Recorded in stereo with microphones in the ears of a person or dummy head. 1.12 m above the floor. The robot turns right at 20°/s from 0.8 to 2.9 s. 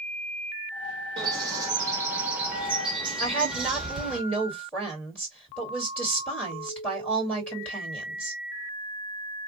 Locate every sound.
1.2 s a bird: 25° right (ahead or behind), 1.0 m; by 4.2 s 5° right (ahead or behind), 1.0 m
3.2 s a woman speaking: 10° left (ahead or behind), 2 m